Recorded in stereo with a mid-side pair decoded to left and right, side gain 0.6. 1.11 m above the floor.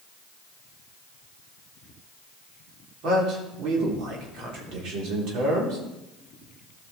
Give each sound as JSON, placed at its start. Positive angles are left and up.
{"t": 3.0, "sound": "a man speaking", "azimuth_deg": -65, "distance_m": 3.5}